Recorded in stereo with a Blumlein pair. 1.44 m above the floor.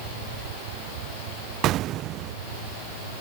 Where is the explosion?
35° right.